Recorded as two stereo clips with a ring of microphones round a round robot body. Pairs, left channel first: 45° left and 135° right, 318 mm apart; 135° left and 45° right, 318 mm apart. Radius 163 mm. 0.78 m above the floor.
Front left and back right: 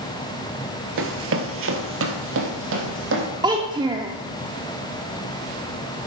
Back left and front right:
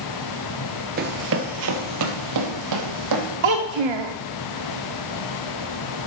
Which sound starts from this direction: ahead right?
A child speaking, at 3.4 s.